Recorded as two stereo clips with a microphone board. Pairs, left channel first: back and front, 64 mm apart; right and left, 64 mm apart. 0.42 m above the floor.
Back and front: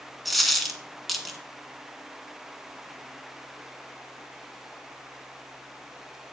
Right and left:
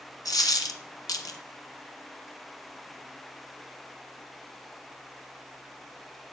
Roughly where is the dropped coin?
Right.